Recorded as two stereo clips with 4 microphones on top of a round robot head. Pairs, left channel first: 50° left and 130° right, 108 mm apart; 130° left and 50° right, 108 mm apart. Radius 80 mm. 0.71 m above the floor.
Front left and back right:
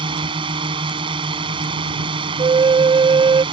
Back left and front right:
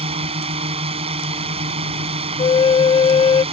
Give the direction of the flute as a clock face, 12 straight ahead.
6 o'clock.